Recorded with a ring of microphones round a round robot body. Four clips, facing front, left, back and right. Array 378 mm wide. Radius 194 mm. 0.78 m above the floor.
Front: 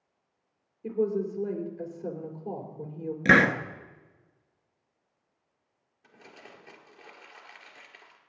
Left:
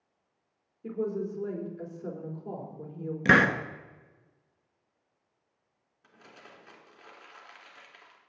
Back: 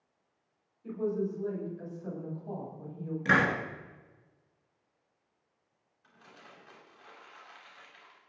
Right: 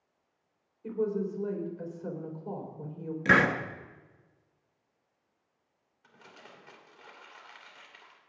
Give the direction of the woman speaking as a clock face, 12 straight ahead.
11 o'clock.